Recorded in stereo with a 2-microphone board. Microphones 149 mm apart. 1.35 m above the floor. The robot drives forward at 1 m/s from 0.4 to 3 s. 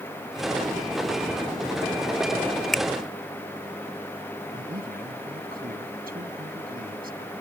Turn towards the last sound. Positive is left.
turn(degrees=-80)